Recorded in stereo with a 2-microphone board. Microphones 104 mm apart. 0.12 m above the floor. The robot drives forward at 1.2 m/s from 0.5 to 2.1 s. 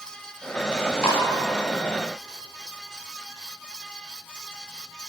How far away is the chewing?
About 9.5 m.